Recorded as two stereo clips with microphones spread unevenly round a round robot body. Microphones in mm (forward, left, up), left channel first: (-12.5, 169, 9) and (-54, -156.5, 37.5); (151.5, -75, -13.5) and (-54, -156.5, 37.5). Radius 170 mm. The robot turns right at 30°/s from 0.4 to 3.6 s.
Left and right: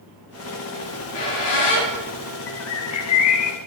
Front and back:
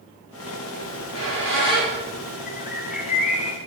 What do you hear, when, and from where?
0.8 s a squeak: 60° left, 4.5 m; by 2.4 s 105° left, 4.5 m
2.5 s a bird: 45° left, 0.9 m; by 3.6 s 80° left, 0.9 m